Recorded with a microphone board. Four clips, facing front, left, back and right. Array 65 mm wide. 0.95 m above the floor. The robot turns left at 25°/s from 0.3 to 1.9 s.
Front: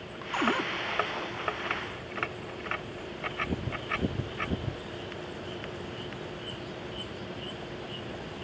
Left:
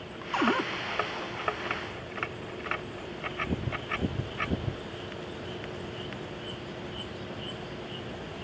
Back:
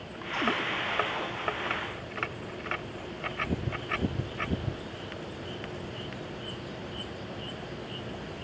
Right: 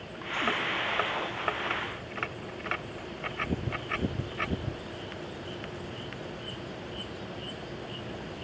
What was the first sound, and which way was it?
A cupboard door, 70° left.